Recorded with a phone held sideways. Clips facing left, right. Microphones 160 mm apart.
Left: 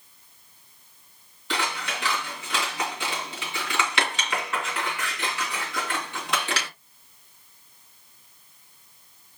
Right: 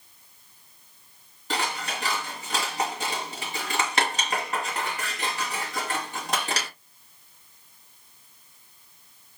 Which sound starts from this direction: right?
Scissors, at 1.5 s.